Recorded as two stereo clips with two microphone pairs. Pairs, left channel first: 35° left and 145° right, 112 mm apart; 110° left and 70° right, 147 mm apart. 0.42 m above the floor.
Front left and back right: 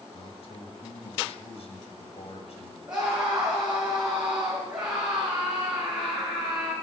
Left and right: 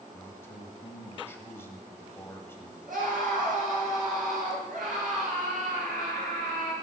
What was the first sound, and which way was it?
A man speaking, 35° left.